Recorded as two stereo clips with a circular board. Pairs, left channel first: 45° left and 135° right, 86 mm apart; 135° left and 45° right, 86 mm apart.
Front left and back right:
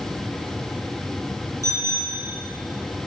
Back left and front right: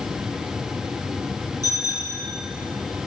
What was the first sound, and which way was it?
A bicycle bell, 175° left.